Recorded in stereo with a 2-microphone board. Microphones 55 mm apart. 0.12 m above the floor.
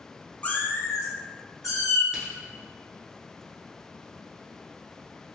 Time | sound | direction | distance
0.4 | a cat meowing | 25° left (ahead or behind) | 0.5 m
2.1 | a crack | 15° right (ahead or behind) | 1.0 m